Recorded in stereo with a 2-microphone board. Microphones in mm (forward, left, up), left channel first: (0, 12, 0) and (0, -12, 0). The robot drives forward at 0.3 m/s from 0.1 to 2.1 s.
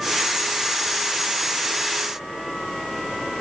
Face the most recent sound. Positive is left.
No sound to turn to.